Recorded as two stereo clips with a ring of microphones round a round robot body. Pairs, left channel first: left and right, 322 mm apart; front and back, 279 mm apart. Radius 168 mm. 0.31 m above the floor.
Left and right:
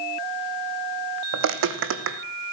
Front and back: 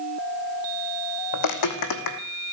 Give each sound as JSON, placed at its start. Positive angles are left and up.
{"t": 1.3, "sound": "footsteps", "azimuth_deg": -35, "distance_m": 1.3}